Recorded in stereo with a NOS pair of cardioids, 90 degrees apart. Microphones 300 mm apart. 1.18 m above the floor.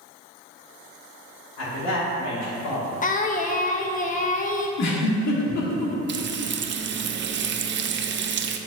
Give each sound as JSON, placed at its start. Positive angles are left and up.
{"t": 1.6, "sound": "a man speaking", "azimuth_deg": 60, "distance_m": 2.5}
{"t": 3.0, "sound": "singing", "azimuth_deg": 25, "distance_m": 0.8}
{"t": 4.8, "sound": "a giggle", "azimuth_deg": 70, "distance_m": 1.5}
{"t": 6.1, "sound": "frying", "azimuth_deg": -40, "distance_m": 0.6}